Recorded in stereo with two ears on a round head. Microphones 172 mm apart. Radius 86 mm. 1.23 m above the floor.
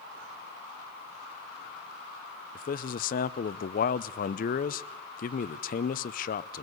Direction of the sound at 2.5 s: 50° left (ahead or behind).